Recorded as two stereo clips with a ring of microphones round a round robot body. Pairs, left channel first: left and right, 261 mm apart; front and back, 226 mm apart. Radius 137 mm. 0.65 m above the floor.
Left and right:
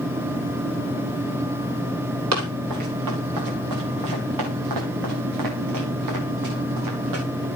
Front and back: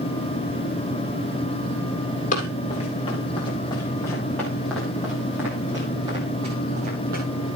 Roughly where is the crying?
No crying in this recording.